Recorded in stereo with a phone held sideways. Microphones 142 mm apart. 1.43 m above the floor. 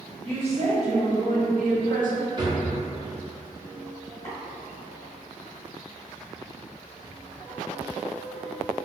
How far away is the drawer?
About 1.3 m.